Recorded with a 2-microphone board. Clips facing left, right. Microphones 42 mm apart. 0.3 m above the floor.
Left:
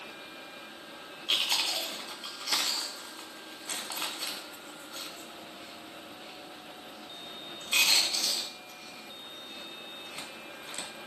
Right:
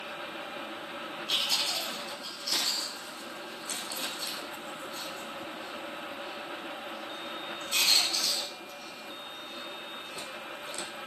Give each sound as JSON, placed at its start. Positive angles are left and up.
{"t": 1.3, "sound": "chewing", "side_deg": 45, "distance_m": 3.0}